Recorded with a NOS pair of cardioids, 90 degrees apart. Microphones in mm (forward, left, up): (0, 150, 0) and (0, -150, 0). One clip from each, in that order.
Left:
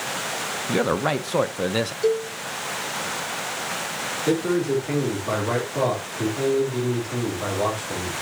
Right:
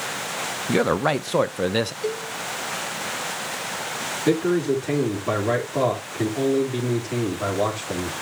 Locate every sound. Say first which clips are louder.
0.7 s a man speaking: right 2 dB; 20° right, 0.6 m
2.0 s a cowbell: left 6 dB; 40° left, 5.5 m
4.2 s a man speaking: right 2 dB; 45° right, 3 m